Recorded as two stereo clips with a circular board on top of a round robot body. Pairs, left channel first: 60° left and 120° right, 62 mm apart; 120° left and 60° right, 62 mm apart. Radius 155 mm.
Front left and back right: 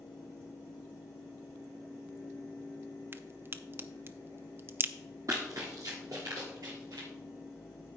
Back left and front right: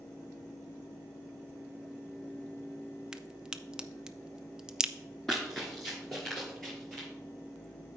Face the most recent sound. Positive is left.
turn(degrees=-155)